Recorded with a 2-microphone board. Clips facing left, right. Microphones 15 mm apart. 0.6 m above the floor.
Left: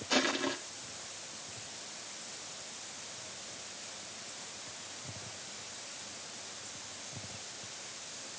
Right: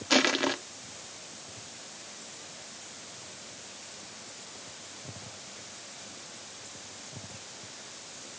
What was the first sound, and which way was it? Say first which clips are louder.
Crushing: right 6 dB; 30° right (ahead or behind).